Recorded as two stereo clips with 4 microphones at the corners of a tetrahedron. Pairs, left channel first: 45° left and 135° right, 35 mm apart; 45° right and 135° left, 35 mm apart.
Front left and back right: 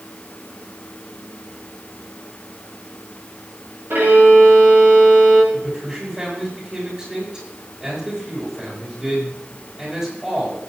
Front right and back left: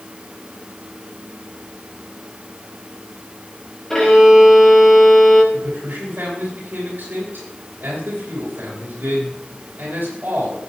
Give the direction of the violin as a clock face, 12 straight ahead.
4 o'clock.